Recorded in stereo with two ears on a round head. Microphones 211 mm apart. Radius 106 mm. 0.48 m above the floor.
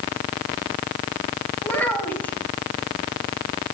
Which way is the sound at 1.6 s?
5° left (ahead or behind).